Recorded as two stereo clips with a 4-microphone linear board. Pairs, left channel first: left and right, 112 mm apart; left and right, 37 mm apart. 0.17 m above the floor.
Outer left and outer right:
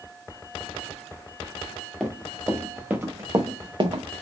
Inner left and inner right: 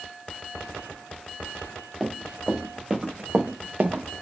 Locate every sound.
2.0 s running footsteps: 5° left (ahead or behind), 1.3 m; by 4.0 s 60° right (ahead or behind), 0.8 m